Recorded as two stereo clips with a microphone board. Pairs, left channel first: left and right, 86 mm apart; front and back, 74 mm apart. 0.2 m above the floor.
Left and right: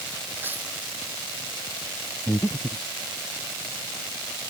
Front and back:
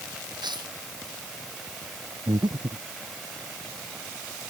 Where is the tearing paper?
160° right.